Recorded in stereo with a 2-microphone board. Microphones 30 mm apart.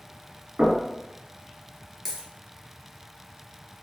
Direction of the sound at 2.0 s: 15° left (ahead or behind).